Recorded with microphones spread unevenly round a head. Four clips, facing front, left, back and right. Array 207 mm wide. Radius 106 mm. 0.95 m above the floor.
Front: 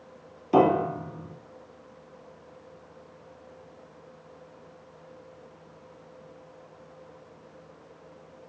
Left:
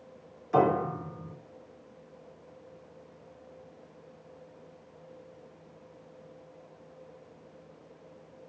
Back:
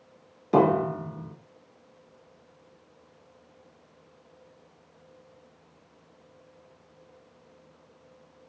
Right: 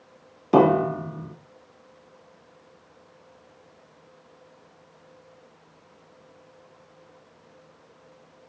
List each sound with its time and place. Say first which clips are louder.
0.5 s a piano: right 7 dB, even; 95° right, 2.0 m